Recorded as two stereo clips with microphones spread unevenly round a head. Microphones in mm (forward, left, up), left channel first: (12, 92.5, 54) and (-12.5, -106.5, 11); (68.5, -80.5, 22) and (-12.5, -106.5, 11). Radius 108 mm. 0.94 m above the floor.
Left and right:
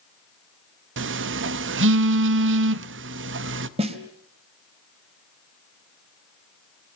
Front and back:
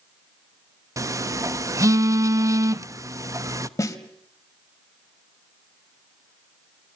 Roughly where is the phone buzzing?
Behind right.